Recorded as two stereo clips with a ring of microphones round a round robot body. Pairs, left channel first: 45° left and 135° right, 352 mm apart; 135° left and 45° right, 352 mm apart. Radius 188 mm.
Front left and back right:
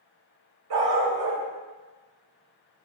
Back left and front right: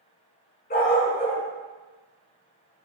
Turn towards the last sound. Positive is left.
turn(degrees=-160)